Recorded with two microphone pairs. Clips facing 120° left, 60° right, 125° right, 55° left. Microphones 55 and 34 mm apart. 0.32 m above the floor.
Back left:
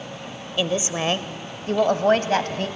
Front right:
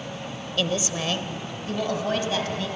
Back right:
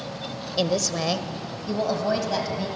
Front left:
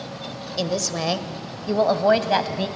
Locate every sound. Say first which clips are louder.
0.6 s a woman speaking: back left 3 dB, back right 1 dB; 175° left, 0.9 m; by 2.7 s 90° left, 1.8 m